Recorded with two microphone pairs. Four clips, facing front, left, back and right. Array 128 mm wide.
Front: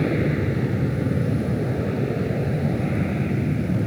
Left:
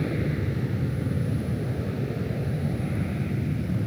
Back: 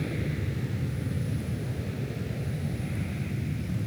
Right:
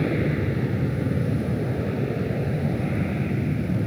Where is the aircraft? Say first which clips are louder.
Right 4 dB, front 11 dB; 25° right.